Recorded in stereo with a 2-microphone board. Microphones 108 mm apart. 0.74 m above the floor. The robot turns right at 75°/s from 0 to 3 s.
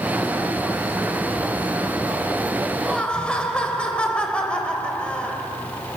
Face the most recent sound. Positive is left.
turn(degrees=10)  # may be behind; listen again after turning